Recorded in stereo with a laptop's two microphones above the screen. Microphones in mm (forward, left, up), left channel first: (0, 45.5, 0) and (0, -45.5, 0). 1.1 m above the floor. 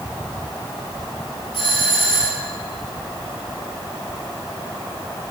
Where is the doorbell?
80° left, 4.5 m.